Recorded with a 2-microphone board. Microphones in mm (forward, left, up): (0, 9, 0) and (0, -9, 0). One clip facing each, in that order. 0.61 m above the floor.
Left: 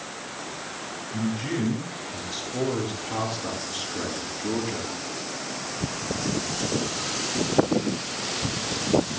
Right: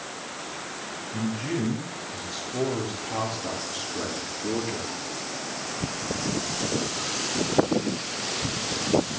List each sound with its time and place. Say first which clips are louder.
1.1 s a man speaking: left 1 dB; 15° left (ahead or behind), 7.5 m; by 5.0 s 5° left (ahead or behind), 6.5 m